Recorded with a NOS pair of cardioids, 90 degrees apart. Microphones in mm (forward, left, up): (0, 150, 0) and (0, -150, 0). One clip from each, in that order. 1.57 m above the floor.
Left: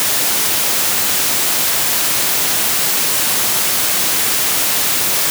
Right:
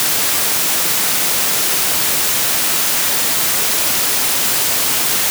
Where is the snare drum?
I don't hear a snare drum.